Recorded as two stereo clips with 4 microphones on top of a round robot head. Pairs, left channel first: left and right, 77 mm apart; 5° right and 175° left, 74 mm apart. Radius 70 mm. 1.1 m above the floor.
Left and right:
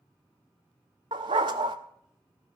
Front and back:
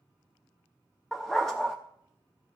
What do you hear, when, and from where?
1.1 s a dog barking: 95° right, 0.6 m